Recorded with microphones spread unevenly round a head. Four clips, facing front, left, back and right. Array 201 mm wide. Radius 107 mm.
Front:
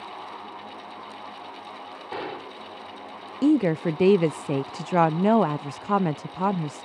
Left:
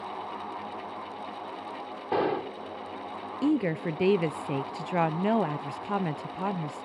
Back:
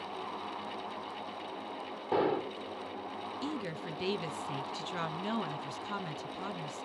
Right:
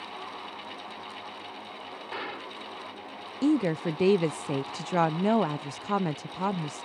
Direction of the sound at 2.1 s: 125° left.